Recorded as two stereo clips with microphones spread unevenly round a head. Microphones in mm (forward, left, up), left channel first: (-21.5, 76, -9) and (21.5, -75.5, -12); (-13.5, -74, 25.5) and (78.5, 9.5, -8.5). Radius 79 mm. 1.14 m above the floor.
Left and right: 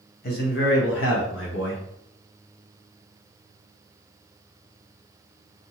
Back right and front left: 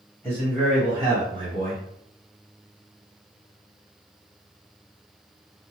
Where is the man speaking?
140° left, 1.2 m; by 1.8 s 80° left, 1.2 m.